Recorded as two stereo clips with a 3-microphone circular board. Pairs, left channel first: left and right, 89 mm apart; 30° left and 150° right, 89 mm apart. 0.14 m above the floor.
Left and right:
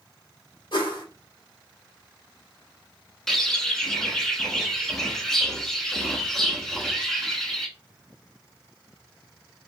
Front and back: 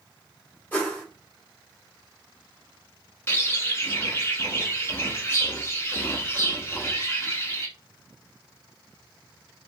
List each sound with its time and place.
0.7 s a whoosh: 100° left, 1.6 m
3.3 s a bird: 10° left, 0.7 m